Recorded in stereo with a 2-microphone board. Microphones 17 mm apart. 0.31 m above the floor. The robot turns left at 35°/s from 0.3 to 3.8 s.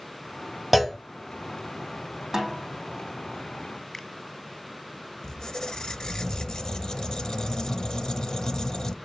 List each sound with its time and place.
0.7 s a clunk: centre (ahead or behind), 0.8 m; by 1.0 s 5° left (ahead or behind), 0.8 m
2.3 s a snare drum: 25° right (ahead or behind), 5.5 m; by 2.6 s 15° right (ahead or behind), 5.5 m
3.9 s a finger snap: 30° left (ahead or behind), 1.7 m
5.2 s a squeak: 40° left (ahead or behind), 0.8 m